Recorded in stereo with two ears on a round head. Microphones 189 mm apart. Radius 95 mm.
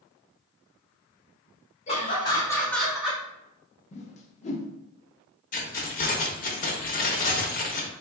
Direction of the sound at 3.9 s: 35° left (ahead or behind).